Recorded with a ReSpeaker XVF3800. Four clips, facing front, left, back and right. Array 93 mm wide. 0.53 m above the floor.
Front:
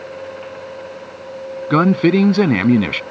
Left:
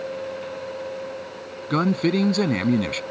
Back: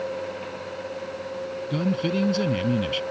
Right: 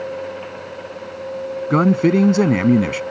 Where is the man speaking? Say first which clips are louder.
Right 6 dB, front 13 dB; 20° right.